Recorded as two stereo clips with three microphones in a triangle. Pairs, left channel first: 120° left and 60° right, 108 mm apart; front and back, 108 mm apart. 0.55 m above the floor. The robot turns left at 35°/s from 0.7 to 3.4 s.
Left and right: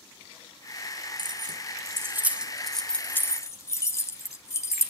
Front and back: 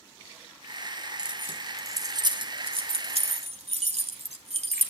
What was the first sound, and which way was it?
Keys jangling, 100° right.